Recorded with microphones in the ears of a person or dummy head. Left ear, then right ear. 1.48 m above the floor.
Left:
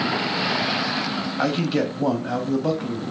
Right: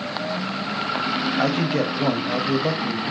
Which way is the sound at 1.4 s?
5° right (ahead or behind).